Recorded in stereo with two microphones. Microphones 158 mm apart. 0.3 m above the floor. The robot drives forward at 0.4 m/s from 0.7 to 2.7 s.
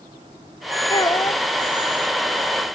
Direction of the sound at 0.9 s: 30° left (ahead or behind).